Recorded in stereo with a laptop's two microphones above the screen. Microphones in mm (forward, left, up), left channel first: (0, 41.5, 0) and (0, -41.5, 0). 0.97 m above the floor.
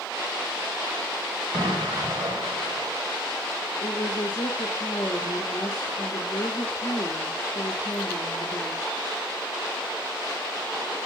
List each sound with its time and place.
1.5 s an explosion: 70° right (ahead or behind), 2.5 m
3.8 s a woman speaking: 45° left (ahead or behind), 1.6 m